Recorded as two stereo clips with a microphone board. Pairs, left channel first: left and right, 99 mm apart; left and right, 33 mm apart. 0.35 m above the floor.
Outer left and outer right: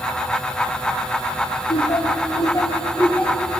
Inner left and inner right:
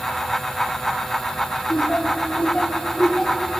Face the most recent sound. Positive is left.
turn(degrees=5)  # may be behind; listen again after turning